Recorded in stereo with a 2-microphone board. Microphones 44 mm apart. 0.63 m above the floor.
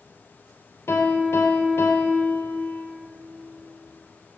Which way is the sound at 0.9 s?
70° left (ahead or behind).